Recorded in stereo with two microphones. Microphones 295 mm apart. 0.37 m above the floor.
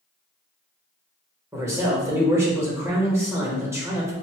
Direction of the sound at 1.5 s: 10° right (ahead or behind).